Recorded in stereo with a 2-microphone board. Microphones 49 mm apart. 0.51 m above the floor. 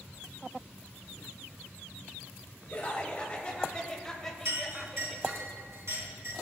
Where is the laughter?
30° left (ahead or behind), 2.5 m; by 5.5 s 10° right (ahead or behind), 2 m.